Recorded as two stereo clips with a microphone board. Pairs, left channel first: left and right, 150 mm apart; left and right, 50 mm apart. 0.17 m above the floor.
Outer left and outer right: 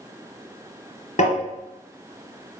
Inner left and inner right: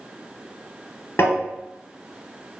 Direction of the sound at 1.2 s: 55° left (ahead or behind).